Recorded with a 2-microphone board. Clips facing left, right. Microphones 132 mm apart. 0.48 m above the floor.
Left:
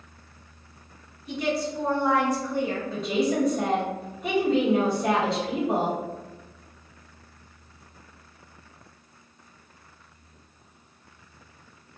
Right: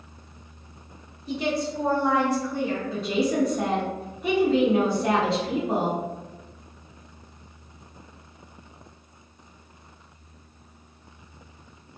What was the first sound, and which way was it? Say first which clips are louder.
A woman speaking: right 1 dB; 30° right (ahead or behind).